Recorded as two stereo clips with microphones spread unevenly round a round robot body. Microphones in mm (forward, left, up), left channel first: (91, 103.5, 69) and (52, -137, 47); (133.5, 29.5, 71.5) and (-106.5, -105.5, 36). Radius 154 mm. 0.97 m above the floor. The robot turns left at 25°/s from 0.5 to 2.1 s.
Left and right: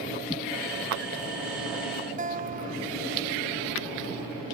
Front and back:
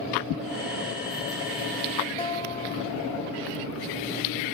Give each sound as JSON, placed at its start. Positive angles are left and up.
{"t": 2.2, "sound": "a guitar", "azimuth_deg": -40}